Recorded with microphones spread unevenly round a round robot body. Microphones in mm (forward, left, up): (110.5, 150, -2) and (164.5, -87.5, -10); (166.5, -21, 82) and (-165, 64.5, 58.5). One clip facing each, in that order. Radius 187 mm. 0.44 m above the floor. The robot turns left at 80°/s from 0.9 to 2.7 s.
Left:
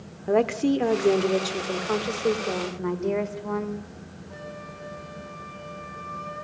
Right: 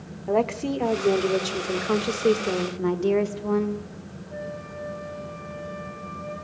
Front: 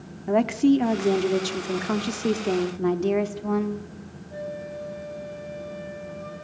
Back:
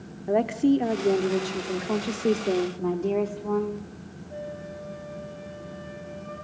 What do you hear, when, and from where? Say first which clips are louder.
0.3 s a woman speaking: left 3 dB, front 2 dB; 40° left, 1.2 m; by 2.7 s 105° right, 1.2 m
2.8 s a woman speaking: right 5 dB, front 2 dB; 55° right, 1.1 m
4.3 s a flute: right 6 dB, front 3 dB; 55° left, 6.5 m